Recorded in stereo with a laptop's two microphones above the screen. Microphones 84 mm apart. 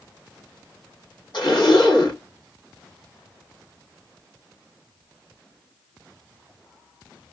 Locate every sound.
1.3 s a zipper: 65° left (ahead or behind), 2.5 m